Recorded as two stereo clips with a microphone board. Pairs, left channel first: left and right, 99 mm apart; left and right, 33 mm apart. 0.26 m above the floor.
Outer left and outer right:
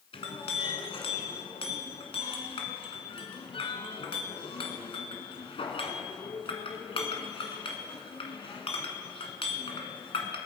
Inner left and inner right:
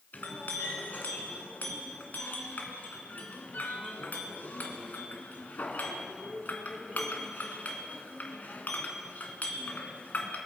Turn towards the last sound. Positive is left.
turn(degrees=60)  # may be behind; listen again after turning